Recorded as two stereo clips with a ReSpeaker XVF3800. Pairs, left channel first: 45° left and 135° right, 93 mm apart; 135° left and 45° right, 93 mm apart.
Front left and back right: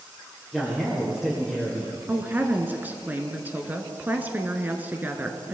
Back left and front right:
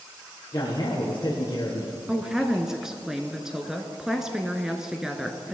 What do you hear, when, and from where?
0.5 s a man speaking: 140° left, 2.5 m
2.1 s a woman speaking: 120° right, 1.1 m